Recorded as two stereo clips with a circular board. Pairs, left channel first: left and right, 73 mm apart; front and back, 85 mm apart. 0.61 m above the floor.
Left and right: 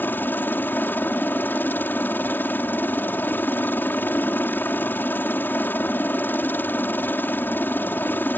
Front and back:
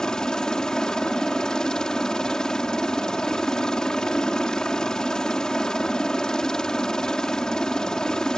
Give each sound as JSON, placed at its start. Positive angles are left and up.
{"t": 0.0, "sound": "a helicopter", "azimuth_deg": 75}